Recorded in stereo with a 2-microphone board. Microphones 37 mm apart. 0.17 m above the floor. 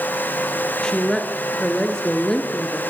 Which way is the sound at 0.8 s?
15° left (ahead or behind).